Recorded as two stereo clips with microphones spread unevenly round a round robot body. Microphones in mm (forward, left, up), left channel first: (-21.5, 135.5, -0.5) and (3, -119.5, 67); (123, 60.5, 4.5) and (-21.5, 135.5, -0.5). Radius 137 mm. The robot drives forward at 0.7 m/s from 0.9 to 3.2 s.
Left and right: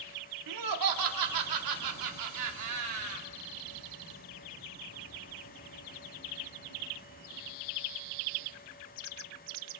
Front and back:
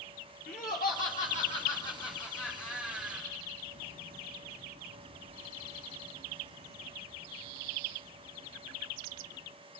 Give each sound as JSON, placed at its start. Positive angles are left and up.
{"t": 0.5, "sound": "laughter", "azimuth_deg": -85, "distance_m": 2.5}